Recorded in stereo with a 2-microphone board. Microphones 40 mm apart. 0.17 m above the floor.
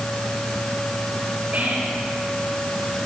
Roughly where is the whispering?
Right.